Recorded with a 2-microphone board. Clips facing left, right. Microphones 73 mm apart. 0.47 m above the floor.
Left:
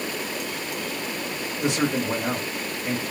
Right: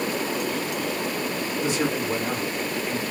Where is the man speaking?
60° left (ahead or behind), 1.9 m.